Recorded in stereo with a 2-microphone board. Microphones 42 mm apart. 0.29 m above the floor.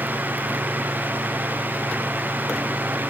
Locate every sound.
Only background noise.